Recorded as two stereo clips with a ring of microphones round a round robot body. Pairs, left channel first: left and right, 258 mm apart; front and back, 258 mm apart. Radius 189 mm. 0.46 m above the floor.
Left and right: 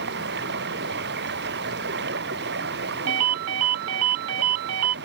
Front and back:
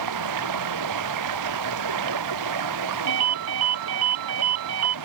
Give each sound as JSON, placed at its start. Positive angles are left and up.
{"t": 0.0, "sound": "running water", "azimuth_deg": -155}
{"t": 3.1, "sound": "a ringtone", "azimuth_deg": -135}